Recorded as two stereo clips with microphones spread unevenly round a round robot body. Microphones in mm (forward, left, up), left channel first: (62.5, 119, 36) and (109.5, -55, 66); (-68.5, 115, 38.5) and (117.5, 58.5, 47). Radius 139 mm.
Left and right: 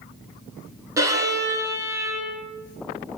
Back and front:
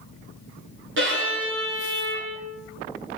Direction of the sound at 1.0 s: Straight ahead.